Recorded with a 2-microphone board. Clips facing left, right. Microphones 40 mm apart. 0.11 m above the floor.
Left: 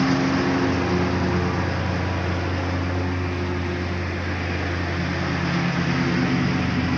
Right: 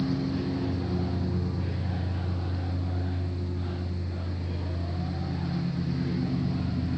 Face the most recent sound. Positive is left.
turn(degrees=80)